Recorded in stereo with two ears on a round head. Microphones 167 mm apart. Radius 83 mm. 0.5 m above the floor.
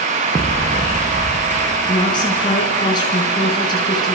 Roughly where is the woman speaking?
Left.